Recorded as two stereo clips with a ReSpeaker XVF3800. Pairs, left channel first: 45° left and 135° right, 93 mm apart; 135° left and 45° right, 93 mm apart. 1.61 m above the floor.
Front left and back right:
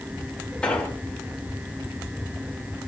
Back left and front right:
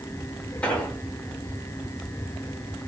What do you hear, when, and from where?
0.6 s an explosion: 95° left, 1.3 m